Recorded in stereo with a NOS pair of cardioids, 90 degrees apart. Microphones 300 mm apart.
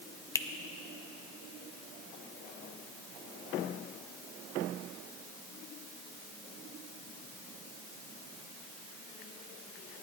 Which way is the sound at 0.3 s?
10° left.